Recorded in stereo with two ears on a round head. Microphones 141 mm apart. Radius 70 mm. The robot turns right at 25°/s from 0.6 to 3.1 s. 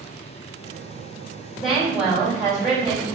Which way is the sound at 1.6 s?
165° left.